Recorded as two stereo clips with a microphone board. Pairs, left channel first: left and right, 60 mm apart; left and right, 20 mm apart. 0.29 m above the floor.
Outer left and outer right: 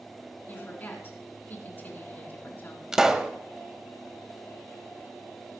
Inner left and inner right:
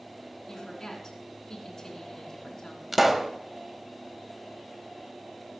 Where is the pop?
10° right (ahead or behind), 0.8 m.